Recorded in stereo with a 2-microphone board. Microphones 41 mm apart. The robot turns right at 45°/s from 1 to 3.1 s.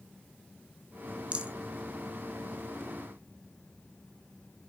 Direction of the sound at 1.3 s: 30° right (ahead or behind).